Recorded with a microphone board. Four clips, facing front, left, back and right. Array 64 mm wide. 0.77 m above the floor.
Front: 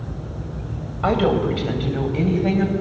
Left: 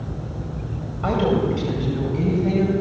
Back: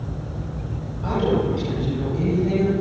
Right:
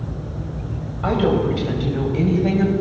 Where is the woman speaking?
5° right, 4 m; by 2.7 s 25° right, 5 m.